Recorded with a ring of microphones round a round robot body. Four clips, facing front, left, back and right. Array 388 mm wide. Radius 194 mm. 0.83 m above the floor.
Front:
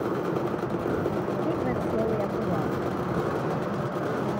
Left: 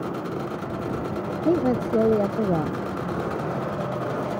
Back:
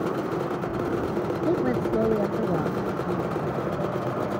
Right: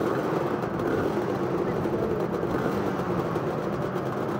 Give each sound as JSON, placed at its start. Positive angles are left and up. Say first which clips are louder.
{"t": 1.4, "sound": "a woman speaking", "louder": "left 5 dB, back 3 dB", "azimuth_deg": 100}